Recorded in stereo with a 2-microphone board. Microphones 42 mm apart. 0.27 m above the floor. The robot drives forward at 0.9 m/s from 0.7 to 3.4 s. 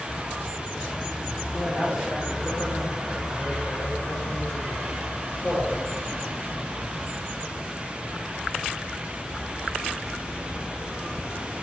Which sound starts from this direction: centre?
A man speaking, at 1.5 s.